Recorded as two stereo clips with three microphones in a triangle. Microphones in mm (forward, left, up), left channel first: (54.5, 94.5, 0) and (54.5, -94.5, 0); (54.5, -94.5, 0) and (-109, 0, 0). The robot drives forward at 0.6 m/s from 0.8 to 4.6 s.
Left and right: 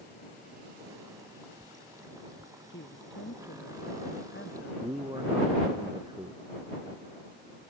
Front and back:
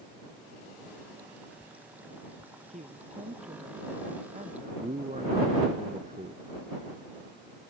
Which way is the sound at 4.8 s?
160° right.